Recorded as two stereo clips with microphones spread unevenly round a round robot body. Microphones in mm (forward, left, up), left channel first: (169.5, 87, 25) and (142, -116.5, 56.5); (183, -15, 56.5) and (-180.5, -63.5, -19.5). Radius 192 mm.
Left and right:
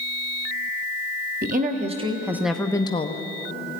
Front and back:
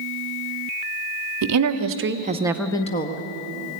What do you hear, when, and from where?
1.4 s a woman speaking: 155° right, 1.8 m; by 3.2 s 65° left, 1.3 m